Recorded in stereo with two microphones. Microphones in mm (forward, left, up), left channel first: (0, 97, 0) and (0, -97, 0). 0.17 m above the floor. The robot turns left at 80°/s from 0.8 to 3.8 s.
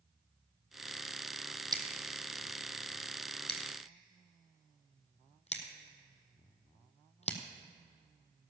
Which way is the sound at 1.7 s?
20° right (ahead or behind).